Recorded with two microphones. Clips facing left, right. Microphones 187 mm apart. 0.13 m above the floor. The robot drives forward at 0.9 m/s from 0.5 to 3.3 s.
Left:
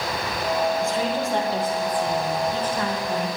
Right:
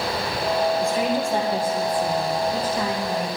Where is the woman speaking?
15° right (ahead or behind), 3 m; by 3.3 s 10° right (ahead or behind), 5 m.